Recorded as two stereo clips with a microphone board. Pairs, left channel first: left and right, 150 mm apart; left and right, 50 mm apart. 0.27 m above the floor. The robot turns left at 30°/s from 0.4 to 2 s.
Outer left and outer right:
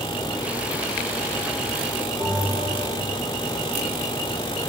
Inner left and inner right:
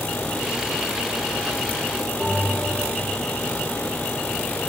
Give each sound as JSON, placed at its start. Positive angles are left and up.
{"t": 2.2, "sound": "a bell", "side_deg": 10, "distance_m": 6.5}